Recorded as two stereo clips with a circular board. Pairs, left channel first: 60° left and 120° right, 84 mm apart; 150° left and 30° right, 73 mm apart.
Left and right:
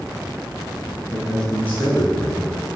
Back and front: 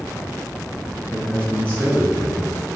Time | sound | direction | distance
1.1 | a man speaking | 150° left | 1.5 m